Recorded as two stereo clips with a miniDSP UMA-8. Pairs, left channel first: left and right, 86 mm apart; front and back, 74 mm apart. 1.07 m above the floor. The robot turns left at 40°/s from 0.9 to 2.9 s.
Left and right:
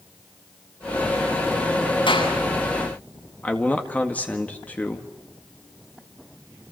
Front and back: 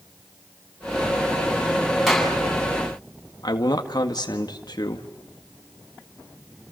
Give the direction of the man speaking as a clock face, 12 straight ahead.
11 o'clock.